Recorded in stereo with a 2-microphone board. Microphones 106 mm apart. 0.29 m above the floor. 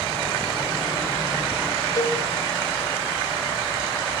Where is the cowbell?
35° left (ahead or behind), 1.1 m.